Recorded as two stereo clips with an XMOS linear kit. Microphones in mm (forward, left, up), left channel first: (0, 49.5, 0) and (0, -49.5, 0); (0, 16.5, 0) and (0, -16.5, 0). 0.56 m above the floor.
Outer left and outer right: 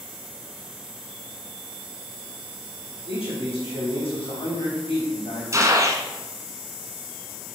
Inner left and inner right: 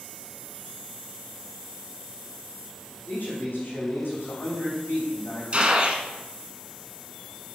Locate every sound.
3.1 s a man speaking: 75° left (ahead or behind), 4 m
5.5 s a gunshot: 35° right (ahead or behind), 1.2 m